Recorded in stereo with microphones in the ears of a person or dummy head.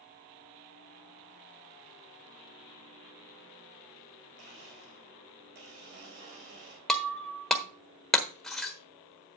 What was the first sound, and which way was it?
A blender, 60° right (ahead or behind).